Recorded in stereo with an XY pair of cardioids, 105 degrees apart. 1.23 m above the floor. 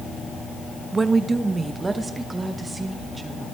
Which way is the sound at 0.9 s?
25° right.